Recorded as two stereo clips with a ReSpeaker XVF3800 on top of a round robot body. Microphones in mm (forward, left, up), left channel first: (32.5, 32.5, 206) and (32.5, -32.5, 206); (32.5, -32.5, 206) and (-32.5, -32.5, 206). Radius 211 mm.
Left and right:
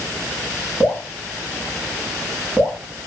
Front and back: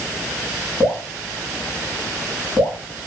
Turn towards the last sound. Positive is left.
turn(degrees=40)